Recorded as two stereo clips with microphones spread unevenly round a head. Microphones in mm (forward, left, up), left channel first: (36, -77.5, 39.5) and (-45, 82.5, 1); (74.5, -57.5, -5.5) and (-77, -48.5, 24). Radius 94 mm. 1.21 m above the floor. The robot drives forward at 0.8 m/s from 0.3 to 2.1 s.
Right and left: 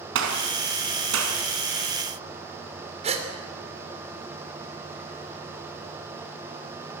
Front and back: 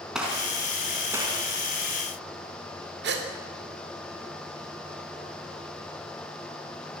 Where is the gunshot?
90° left, 4 m; by 1.4 s 105° left, 4 m.